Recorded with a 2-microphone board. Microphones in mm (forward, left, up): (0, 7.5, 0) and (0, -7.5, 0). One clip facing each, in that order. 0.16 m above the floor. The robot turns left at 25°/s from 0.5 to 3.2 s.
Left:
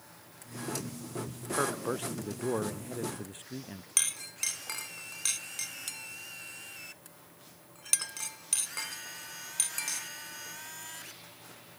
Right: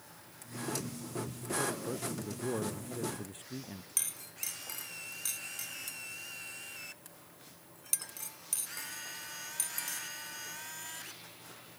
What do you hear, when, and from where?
1.5 s a man speaking: 55° left; by 3.9 s 15° left
4.0 s a clink: 35° left (ahead or behind)